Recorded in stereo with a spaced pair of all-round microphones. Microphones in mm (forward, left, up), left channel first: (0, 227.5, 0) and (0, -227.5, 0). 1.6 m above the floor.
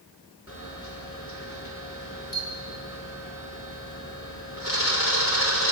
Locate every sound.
0.5 s a camera shutter: 30° left (ahead or behind), 5.5 m